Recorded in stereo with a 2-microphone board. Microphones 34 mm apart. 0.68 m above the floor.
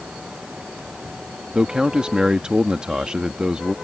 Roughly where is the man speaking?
Right.